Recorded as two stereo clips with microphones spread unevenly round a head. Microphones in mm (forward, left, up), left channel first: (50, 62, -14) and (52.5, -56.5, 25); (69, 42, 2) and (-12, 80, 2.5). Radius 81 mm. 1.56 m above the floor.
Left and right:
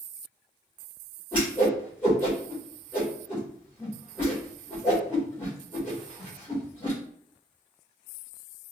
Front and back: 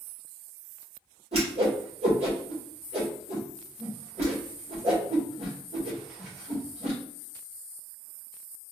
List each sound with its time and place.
1.3 s a whoosh: 175° left, 1.7 m